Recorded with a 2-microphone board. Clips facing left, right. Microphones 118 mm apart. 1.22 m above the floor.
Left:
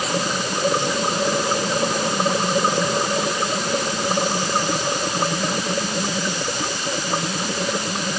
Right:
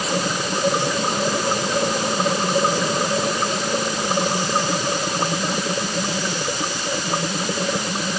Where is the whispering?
I don't hear whispering.